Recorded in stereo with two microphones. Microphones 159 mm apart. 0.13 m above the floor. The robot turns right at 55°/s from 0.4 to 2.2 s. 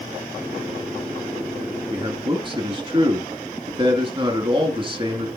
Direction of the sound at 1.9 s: 30° right (ahead or behind).